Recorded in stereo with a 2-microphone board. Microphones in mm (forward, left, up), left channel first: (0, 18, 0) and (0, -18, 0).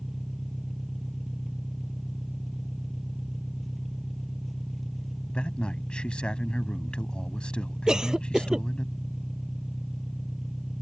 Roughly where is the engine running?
Centre.